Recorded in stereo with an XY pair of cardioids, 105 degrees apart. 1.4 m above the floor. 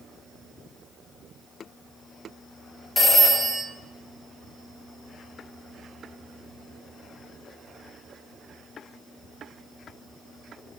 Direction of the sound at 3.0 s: 20° left.